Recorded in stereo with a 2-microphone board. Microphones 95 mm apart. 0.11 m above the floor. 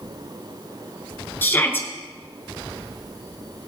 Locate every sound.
1.4 s a shout: 20° left (ahead or behind), 1.9 m